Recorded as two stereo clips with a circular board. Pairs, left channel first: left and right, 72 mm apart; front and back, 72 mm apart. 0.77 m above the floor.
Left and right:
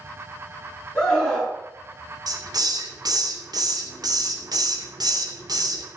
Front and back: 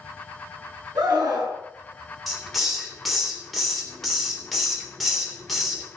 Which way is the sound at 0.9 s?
165° left.